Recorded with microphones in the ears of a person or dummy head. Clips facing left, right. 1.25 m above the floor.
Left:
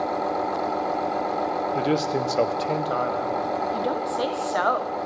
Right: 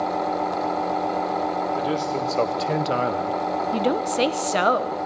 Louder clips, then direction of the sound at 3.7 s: Right 4 dB; 30° right (ahead or behind).